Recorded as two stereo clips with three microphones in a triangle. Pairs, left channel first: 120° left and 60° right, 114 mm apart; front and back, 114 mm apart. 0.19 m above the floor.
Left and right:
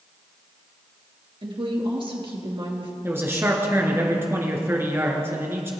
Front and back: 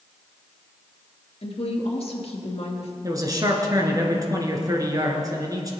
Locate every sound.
1.4 s a woman speaking: 25° right, 2.5 m
3.0 s a man speaking: 125° right, 2 m